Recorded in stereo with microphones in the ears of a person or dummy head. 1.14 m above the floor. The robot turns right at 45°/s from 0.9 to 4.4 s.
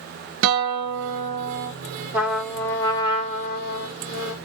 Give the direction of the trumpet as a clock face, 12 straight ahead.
12 o'clock.